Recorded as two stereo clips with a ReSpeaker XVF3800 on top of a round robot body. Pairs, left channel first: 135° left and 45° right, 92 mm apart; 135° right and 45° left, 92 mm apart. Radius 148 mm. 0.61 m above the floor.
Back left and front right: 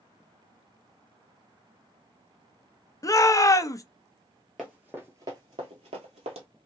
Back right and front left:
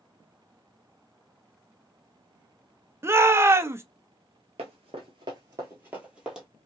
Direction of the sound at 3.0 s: 95° left.